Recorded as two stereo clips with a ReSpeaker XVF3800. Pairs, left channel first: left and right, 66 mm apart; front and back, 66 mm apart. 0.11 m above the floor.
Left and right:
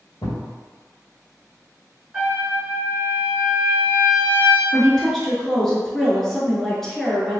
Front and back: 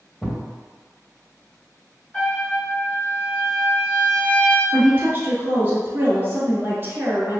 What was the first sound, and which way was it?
A thud, 75° left.